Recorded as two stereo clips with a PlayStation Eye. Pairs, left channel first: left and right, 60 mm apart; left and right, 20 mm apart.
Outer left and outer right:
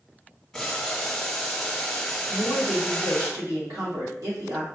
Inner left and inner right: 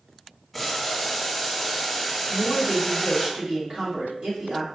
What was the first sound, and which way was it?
Boiling, centre (ahead or behind).